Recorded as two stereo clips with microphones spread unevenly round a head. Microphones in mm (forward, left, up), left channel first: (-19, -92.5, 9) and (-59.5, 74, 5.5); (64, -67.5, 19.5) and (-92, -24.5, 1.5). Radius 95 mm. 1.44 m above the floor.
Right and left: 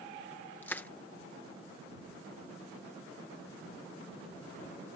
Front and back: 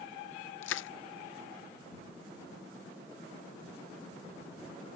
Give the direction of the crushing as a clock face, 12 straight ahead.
12 o'clock.